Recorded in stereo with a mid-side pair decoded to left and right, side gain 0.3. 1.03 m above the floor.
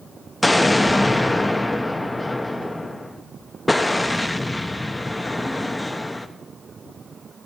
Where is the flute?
No flute in this recording.